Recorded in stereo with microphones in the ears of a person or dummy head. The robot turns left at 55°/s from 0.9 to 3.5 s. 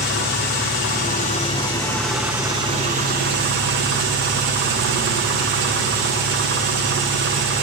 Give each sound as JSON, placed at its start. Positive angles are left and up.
{"t": 0.0, "sound": "an engine running", "azimuth_deg": 70, "distance_m": 0.8}